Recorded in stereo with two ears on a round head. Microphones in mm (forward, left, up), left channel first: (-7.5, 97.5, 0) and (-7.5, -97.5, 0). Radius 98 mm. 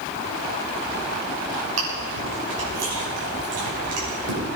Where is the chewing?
80° right, 6.5 m.